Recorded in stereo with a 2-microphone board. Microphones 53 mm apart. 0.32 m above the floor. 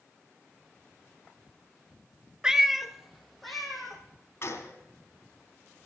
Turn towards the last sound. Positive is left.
turn(degrees=50)  # may be behind; listen again after turning